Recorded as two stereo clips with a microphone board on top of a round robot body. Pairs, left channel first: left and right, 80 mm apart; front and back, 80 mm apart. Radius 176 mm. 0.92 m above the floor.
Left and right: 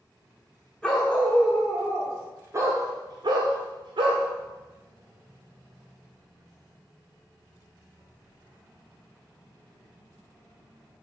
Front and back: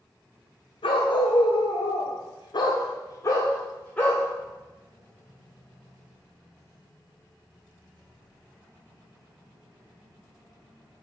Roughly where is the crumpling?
No crumpling in this recording.